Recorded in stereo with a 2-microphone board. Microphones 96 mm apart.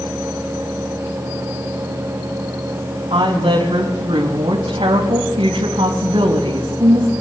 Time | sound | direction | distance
3.1 | a woman speaking | 65° right (ahead or behind) | 4.5 m